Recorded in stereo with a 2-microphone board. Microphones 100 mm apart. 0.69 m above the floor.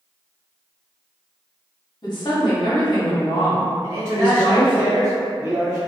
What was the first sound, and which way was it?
A woman speaking, 50° left (ahead or behind).